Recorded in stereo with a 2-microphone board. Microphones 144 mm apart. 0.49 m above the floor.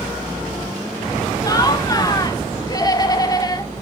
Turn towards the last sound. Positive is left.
turn(degrees=25)  # may be behind; listen again after turning